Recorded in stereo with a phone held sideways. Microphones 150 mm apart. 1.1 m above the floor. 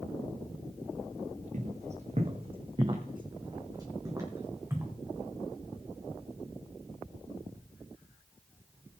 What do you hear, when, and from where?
1.5 s footsteps: 50° right (ahead or behind), 2.5 m; by 4.9 s 15° right (ahead or behind), 4 m